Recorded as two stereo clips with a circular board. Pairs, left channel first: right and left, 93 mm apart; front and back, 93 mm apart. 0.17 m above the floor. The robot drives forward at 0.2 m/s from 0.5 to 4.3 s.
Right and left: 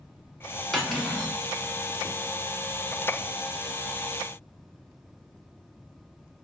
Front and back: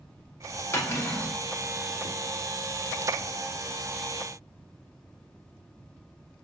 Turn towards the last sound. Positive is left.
turn(degrees=-175)